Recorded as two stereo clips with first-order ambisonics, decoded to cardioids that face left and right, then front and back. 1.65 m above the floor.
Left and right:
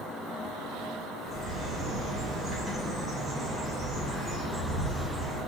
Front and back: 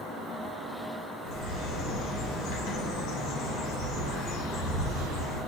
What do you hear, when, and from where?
1.2 s a bird: 15° right, 3 m